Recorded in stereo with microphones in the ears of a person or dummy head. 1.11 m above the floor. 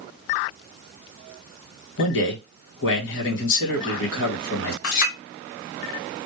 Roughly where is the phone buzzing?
I don't hear a phone buzzing.